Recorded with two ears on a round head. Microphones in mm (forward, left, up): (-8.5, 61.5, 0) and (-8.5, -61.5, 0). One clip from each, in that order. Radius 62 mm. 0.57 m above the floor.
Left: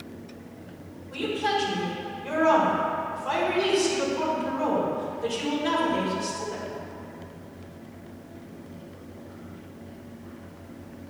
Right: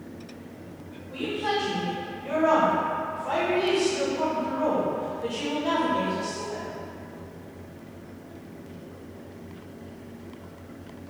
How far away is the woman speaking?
About 1.6 m.